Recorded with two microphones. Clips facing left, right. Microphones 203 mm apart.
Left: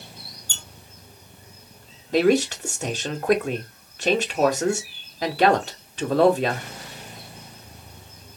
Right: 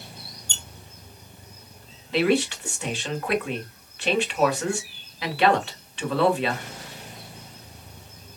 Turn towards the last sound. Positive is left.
turn(degrees=40)  # may be behind; listen again after turning